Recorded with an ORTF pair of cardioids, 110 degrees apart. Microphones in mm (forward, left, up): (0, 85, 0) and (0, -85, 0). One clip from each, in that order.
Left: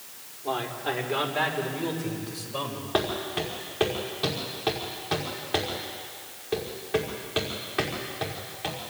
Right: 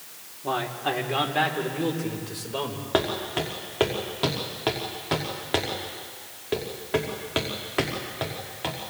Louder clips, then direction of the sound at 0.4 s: Right 2 dB; 35° right.